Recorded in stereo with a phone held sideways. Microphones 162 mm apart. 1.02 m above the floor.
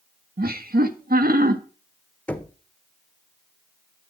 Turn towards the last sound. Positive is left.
turn(degrees=10)  # may be behind; listen again after turning